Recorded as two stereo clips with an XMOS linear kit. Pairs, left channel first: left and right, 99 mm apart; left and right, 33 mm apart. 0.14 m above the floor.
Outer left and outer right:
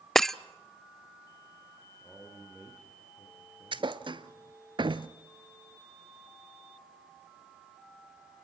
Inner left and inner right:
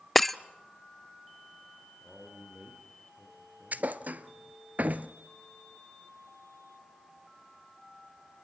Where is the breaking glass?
5° left (ahead or behind), 0.5 m.